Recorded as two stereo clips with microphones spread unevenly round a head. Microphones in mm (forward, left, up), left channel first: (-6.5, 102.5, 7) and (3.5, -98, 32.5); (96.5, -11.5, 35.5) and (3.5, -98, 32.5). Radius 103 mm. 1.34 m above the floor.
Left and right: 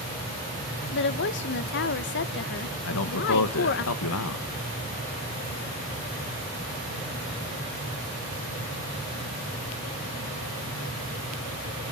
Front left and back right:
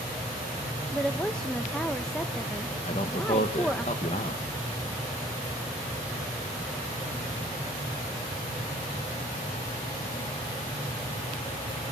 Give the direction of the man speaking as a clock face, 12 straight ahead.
9 o'clock.